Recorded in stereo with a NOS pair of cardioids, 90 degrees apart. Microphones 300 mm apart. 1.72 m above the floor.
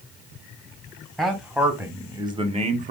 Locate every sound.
1.2 s a man speaking: straight ahead, 1.7 m; by 2.9 s 30° right, 1.1 m